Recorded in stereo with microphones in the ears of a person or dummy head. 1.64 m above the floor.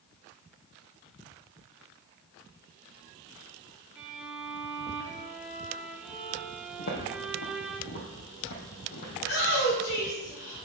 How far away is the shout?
About 4 m.